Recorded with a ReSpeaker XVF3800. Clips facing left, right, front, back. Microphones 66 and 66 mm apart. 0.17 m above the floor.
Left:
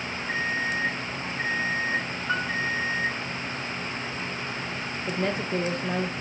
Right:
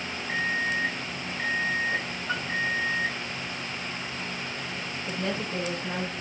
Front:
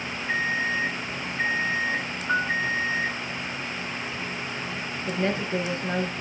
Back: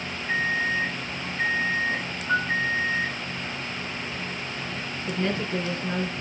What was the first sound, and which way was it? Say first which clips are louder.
An alarm clock: even, back 1 dB; 80° left.